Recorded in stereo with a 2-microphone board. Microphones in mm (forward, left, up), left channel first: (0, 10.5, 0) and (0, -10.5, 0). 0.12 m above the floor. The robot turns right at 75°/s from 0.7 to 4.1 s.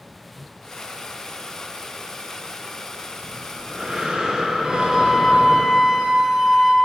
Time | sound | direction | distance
3.2 | breathing | 175° right | 2 m
4.6 | a flute | 50° right (ahead or behind) | 1.3 m